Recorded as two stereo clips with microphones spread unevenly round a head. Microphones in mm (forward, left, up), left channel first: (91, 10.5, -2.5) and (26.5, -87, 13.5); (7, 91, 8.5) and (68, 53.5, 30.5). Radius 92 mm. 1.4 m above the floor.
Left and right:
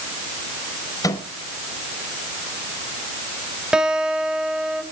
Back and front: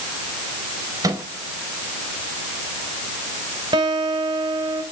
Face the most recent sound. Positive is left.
turn(degrees=-40)